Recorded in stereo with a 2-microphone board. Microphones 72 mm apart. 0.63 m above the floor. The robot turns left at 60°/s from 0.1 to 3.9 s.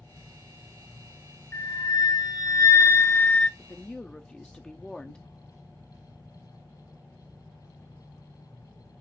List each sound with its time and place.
1.5 s a flute: 130° left, 0.7 m; by 3.5 s 15° left, 0.7 m
3.6 s a woman speaking: 25° left (ahead or behind), 0.7 m; by 5.2 s 10° left (ahead or behind), 0.7 m